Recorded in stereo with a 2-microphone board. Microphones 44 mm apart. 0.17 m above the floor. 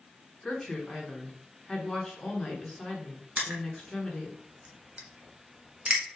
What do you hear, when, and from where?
0.4 s a woman speaking: 10° left (ahead or behind), 1.7 m
3.4 s crushing: 30° right (ahead or behind), 1.2 m